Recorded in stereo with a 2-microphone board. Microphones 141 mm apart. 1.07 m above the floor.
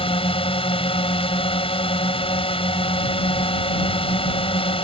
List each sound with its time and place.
0.0 s a drone: 40° left (ahead or behind)